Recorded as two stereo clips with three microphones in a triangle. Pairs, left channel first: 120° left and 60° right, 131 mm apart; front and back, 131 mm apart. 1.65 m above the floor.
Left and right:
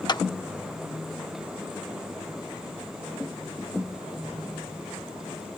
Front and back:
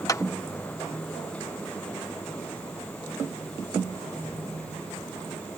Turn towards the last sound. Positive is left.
turn(degrees=60)